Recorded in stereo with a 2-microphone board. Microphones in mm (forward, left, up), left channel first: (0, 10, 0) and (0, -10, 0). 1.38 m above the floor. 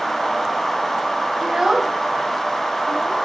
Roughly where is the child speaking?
Right.